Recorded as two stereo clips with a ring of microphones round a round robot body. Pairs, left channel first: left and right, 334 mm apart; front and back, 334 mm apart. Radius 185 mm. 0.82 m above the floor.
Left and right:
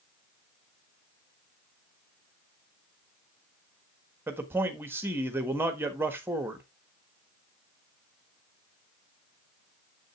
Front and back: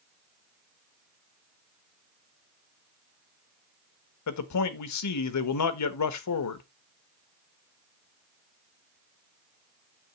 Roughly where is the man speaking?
Ahead.